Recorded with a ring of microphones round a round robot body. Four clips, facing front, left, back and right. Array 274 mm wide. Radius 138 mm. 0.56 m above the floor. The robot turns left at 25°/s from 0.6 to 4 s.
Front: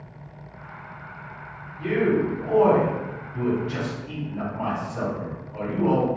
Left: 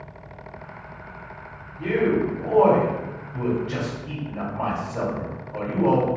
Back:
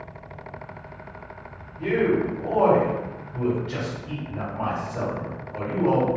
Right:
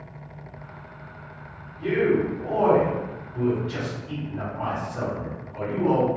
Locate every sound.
1.8 s a man speaking: 170° left, 1.9 m; by 6.1 s 115° left, 1.9 m